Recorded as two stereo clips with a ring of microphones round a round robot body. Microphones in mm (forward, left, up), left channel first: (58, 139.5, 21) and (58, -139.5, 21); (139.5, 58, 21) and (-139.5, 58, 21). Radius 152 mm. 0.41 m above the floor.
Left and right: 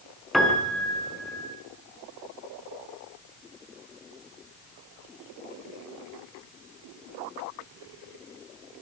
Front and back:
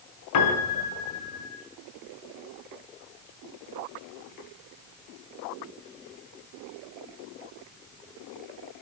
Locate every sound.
0.3 s a piano: straight ahead, 4.5 m